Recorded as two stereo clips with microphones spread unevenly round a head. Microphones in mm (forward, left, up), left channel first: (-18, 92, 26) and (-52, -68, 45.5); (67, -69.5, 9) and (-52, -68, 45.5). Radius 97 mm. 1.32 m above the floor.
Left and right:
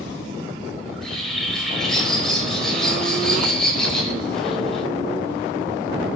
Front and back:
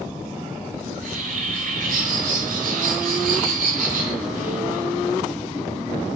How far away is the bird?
About 4.5 m.